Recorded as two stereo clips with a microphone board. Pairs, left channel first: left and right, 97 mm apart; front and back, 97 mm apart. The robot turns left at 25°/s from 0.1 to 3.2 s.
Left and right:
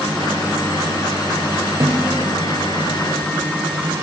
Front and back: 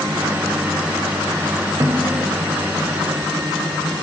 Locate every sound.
1.8 s a snare drum: 130° right, 2.5 m; by 2.4 s 145° right, 2.5 m